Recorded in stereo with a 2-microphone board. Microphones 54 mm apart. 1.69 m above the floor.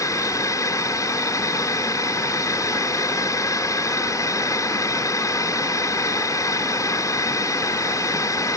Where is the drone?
75° left (ahead or behind).